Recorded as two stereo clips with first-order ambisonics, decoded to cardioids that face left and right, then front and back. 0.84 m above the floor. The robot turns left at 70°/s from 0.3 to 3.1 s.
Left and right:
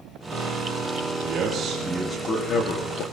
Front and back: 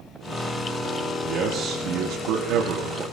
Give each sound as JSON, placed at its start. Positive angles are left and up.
{"t": 1.2, "sound": "a man speaking", "azimuth_deg": -130, "distance_m": 1.7}